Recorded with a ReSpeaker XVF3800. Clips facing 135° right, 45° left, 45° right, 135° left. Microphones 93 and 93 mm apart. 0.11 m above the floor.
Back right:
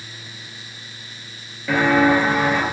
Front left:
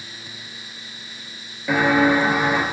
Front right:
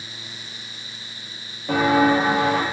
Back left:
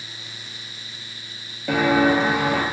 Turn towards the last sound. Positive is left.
turn(degrees=130)